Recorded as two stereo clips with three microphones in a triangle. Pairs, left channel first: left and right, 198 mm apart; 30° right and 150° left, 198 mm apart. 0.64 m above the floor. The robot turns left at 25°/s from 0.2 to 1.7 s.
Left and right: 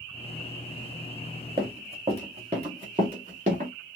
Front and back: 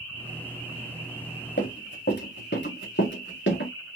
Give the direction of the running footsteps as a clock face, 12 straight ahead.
1 o'clock.